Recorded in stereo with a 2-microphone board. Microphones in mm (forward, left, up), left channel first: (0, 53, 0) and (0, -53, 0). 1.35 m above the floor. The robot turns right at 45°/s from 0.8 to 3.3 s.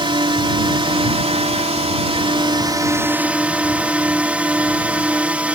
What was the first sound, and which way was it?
A drone, 125° right.